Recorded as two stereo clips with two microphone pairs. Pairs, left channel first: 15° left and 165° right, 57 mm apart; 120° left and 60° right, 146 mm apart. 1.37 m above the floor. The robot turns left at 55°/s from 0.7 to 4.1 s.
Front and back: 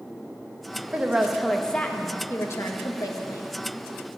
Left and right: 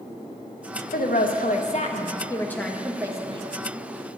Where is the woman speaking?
130° left, 1.3 m; by 3.5 s 10° right, 1.3 m.